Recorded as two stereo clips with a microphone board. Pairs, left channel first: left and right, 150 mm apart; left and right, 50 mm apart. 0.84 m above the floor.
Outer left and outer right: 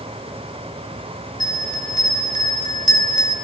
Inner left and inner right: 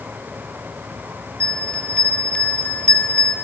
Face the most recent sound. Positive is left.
turn(degrees=30)  # may be behind; listen again after turning